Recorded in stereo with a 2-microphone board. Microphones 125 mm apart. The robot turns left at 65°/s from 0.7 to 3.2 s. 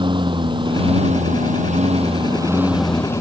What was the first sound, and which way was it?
A lawn mower, 40° right.